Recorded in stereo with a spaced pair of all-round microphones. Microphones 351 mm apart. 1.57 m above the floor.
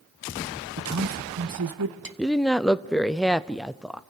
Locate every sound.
0.8 s a man speaking: 50° right (ahead or behind), 1.0 m; by 2.1 s 75° right (ahead or behind), 1.7 m
2.2 s a woman speaking: centre (ahead or behind), 0.5 m